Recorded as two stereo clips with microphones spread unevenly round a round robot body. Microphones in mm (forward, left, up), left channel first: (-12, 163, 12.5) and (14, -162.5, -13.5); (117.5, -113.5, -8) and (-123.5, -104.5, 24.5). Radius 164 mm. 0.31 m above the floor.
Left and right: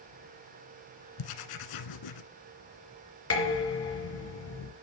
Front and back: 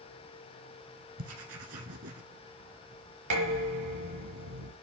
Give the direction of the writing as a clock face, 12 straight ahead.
8 o'clock.